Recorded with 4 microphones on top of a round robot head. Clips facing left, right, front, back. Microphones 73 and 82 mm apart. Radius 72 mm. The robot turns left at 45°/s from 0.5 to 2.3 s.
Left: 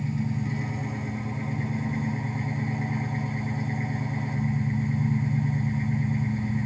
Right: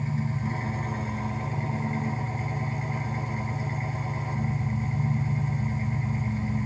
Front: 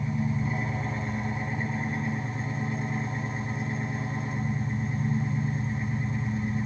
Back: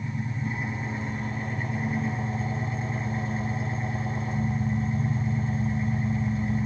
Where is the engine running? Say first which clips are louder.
Left 1 dB, front 3 dB; 35° right, 4.5 m; by 6.7 s 115° right, 4.5 m.